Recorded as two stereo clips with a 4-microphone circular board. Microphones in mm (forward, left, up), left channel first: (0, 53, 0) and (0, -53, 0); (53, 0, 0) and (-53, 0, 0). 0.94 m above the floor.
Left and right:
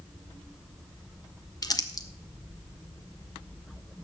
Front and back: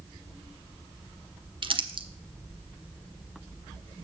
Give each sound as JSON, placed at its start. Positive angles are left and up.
{"t": 1.6, "sound": "crumpling", "azimuth_deg": 145, "distance_m": 0.8}